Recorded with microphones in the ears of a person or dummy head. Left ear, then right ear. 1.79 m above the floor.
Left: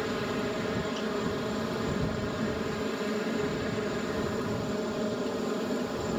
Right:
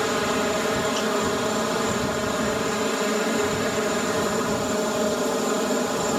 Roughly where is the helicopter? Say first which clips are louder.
Right 9 dB; right.